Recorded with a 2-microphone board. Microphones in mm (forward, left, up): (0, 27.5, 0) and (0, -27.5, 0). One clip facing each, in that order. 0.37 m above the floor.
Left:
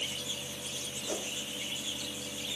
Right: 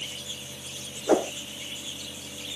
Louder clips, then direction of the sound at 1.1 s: Right 16 dB; 70° right (ahead or behind).